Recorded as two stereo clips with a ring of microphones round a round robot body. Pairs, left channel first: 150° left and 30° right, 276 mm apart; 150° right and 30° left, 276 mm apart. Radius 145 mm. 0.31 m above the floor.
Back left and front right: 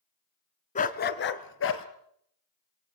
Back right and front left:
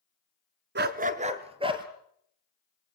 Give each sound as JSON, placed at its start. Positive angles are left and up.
{"t": 0.8, "sound": "a dog barking", "azimuth_deg": 85, "distance_m": 1.0}